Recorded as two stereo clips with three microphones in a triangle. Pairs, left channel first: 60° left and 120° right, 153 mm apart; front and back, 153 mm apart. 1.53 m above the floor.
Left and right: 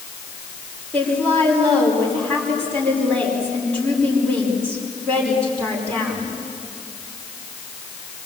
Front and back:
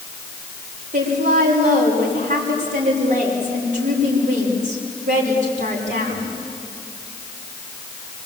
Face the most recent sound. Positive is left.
turn(degrees=140)